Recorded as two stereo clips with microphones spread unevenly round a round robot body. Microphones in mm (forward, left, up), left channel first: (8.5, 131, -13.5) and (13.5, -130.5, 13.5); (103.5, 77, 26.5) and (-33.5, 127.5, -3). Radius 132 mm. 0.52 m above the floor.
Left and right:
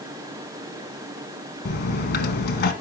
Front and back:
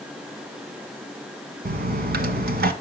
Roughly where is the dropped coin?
Behind left.